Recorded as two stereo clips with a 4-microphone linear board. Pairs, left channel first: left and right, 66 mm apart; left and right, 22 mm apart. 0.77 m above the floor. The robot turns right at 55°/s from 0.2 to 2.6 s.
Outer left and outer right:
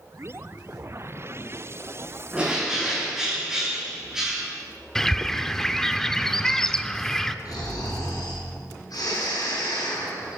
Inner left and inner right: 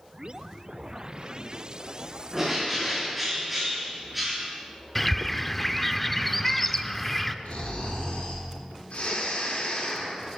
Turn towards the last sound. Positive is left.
turn(degrees=70)  # may be behind; listen again after turning